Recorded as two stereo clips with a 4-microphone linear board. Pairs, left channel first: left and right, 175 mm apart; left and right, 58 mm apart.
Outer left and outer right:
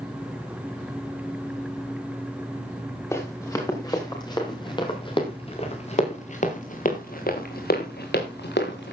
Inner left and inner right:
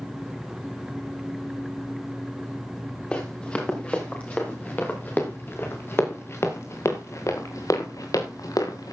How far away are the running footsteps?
About 7 m.